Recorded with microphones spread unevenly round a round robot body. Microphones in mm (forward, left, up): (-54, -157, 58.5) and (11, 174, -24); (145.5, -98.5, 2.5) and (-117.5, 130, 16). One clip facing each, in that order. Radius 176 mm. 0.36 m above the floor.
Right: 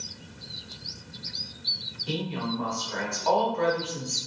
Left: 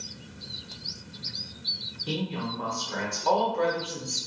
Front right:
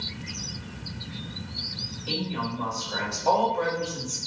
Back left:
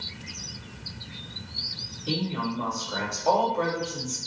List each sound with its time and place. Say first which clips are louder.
2.1 s a woman speaking: right 1 dB, back left 2 dB; 55° left, 1.5 m